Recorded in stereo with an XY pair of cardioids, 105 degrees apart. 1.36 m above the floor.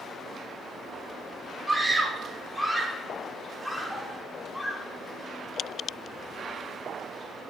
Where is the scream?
15° right, 4 m; by 4.9 s 15° left, 3.5 m.